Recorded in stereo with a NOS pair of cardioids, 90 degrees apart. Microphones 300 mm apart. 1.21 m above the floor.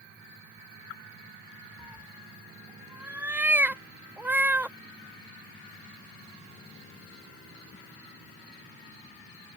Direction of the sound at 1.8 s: 5° right.